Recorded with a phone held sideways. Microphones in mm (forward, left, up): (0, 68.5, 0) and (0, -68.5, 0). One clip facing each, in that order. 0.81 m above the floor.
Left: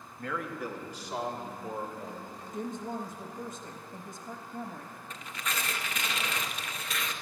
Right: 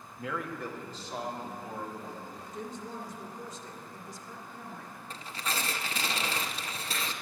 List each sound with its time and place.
0.2 s a man speaking: 10° right (ahead or behind), 0.9 m; by 2.4 s 25° left (ahead or behind), 3.5 m
2.5 s a woman speaking: 50° left (ahead or behind), 0.8 m
5.1 s tearing paper: 30° right (ahead or behind), 0.6 m